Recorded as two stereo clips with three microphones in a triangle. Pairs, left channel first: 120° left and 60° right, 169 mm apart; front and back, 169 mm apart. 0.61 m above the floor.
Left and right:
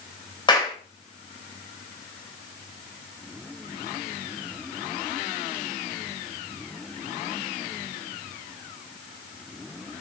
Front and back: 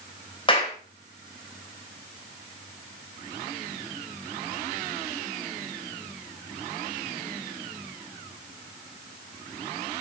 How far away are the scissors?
I don't hear scissors.